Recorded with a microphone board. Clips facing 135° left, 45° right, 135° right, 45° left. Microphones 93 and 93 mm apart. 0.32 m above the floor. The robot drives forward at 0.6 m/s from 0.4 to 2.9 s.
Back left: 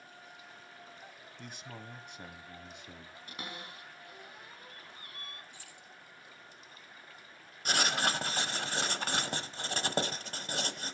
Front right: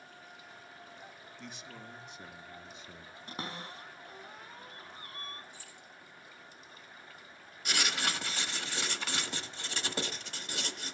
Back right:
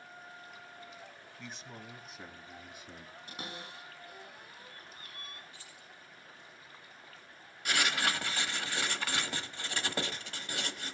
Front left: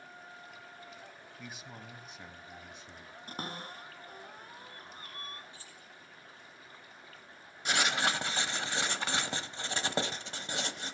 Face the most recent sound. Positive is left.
turn(degrees=105)